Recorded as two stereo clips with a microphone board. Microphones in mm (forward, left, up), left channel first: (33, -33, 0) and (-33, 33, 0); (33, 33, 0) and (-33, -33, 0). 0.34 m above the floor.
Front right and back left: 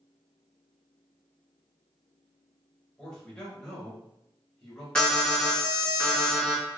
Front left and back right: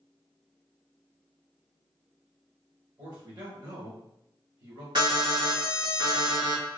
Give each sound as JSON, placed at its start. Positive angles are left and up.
{"t": 3.0, "sound": "a man speaking", "azimuth_deg": -125, "distance_m": 1.2}
{"t": 5.0, "sound": "an alarm", "azimuth_deg": -125, "distance_m": 1.3}